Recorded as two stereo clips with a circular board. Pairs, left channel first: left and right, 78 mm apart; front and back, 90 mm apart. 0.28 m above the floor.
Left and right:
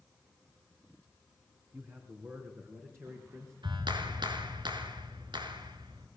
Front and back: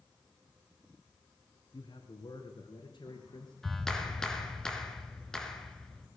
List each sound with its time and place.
1.7 s a man speaking: 30° right, 3 m; by 3.5 s 35° right, 4.5 m
3.6 s a clap: 85° right, 3 m